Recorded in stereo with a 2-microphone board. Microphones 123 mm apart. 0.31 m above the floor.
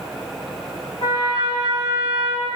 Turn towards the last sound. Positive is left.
turn(degrees=40)  # may be behind; listen again after turning